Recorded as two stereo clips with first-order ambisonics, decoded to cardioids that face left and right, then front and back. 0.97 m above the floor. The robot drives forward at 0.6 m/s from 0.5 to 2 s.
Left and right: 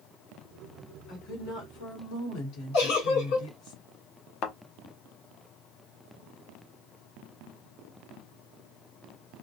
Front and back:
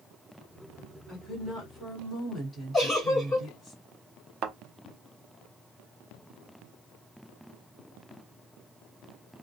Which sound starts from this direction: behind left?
A thud, at 4.4 s.